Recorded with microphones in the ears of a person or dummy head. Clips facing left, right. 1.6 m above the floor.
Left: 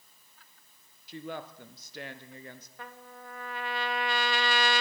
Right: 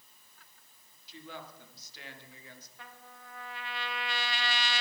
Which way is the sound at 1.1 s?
55° left (ahead or behind).